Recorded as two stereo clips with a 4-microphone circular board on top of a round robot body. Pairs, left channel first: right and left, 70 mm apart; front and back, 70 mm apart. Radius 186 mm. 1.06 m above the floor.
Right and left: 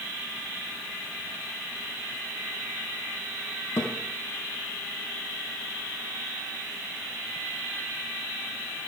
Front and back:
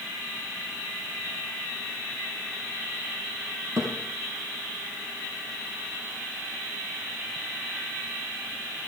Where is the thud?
135° right, 3 m.